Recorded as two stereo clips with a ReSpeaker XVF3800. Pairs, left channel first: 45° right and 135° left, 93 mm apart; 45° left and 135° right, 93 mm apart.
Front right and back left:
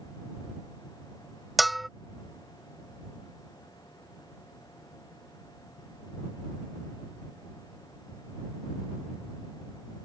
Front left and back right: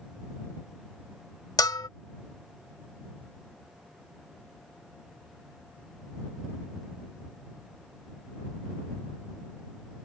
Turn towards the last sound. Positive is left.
turn(degrees=45)